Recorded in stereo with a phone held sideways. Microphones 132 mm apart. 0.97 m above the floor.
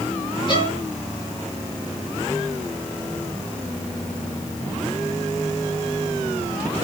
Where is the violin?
40° left (ahead or behind), 1.5 m.